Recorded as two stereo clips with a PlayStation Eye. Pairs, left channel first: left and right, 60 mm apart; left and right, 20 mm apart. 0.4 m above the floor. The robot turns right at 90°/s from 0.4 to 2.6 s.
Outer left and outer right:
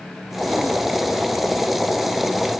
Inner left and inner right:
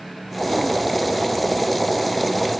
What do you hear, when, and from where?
Only background noise.